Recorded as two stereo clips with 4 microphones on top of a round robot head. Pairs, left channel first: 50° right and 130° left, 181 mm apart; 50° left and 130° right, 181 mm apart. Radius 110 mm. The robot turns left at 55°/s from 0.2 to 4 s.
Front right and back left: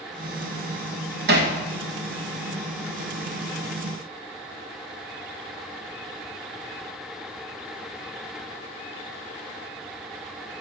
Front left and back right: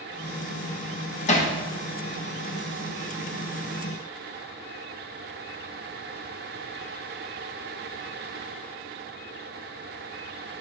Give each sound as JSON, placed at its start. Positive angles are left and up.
{"t": 1.3, "sound": "hammering", "azimuth_deg": 100, "distance_m": 1.4}